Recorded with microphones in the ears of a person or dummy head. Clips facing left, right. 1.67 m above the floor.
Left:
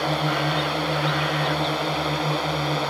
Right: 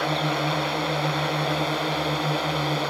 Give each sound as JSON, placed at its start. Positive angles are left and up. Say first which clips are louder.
{"t": 0.0, "sound": "a drone", "louder": "left 1 dB", "side_deg": 5}